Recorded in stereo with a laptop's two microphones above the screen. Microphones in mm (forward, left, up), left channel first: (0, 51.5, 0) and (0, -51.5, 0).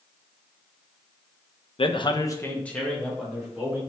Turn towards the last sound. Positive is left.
turn(degrees=-5)  # may be behind; listen again after turning